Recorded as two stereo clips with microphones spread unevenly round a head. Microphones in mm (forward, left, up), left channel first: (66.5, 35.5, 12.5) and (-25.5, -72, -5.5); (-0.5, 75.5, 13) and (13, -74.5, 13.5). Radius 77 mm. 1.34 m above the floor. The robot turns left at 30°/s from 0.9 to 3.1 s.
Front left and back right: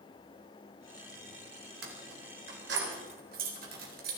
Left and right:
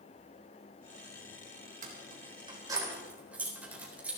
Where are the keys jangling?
125° right, 4 m; by 4.2 s 165° right, 4 m.